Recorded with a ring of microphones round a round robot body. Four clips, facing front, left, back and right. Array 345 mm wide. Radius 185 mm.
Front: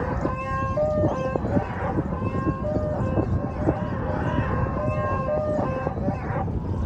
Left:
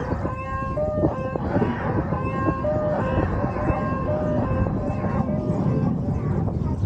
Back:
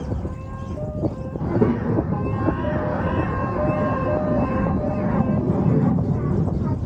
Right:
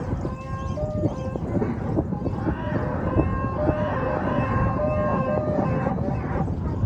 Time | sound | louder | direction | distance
1.4 | a child speaking | left 3 dB, back 5 dB | 175° left | ?